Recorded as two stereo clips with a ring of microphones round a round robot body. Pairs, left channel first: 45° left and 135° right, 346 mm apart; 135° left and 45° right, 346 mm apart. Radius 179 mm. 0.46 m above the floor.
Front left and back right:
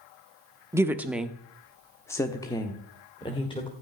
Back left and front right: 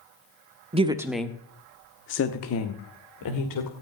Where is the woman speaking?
70° right, 1.0 m; by 3.7 s 120° left, 2.0 m.